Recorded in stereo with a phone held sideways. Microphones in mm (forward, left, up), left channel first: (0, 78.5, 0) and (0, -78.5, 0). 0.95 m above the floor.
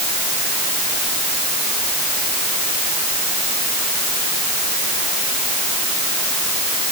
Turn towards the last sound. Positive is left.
No sound to turn to.